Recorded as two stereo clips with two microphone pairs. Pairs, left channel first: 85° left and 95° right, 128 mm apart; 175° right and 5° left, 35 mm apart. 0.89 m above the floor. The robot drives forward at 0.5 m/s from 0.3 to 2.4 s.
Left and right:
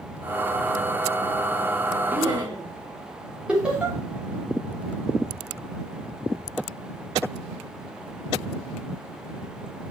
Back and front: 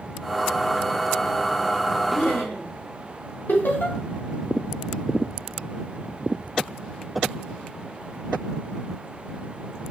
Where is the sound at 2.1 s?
160° right, 4 m.